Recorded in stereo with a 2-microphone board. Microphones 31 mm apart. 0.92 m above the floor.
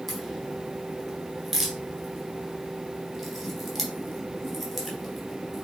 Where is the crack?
5° right (ahead or behind), 3.5 m.